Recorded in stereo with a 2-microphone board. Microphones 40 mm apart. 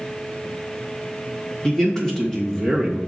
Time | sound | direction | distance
1.6 | a man speaking | 15° left (ahead or behind) | 1.7 m